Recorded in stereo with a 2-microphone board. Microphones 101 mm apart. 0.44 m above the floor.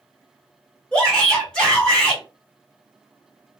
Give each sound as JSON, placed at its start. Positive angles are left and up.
{"t": 0.9, "sound": "a shout", "side_deg": 10, "distance_m": 1.6}